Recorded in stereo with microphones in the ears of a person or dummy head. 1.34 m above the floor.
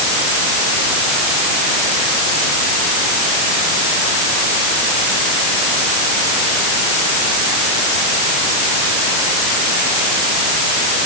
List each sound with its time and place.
Only background noise.